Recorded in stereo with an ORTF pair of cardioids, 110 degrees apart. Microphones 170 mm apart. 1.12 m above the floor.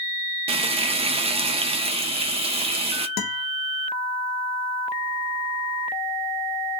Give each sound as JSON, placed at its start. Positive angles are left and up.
{"t": 0.5, "sound": "frying", "azimuth_deg": -35, "distance_m": 0.5}
{"t": 3.2, "sound": "a guitar", "azimuth_deg": 65, "distance_m": 0.9}